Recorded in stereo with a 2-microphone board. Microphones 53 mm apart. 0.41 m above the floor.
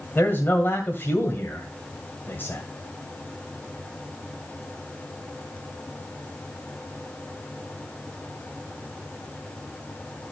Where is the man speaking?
35° left (ahead or behind), 2 m.